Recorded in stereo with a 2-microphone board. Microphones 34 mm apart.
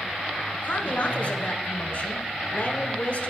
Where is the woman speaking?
45° left (ahead or behind), 1.4 m.